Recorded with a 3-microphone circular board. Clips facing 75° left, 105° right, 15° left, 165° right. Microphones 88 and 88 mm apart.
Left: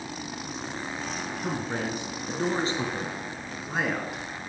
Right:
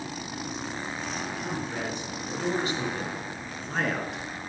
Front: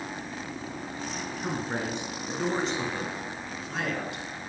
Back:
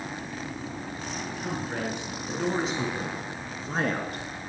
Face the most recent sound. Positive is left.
turn(degrees=165)